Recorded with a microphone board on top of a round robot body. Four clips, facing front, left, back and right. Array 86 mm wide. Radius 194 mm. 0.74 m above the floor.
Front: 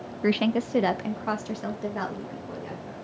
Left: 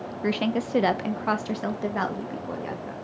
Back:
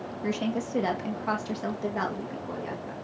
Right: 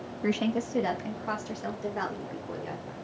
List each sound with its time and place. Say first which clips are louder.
0.2 s a woman speaking: left 2 dB, front 6 dB; 15° left, 0.9 m; by 2.9 s 100° left, 2 m